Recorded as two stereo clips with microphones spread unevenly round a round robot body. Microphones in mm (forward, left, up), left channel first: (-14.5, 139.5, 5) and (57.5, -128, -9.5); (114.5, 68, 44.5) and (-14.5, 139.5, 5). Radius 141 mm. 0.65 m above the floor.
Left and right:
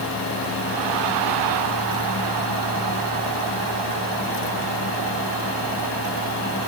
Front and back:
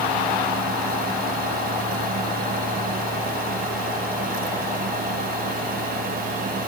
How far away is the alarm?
No alarm in this recording.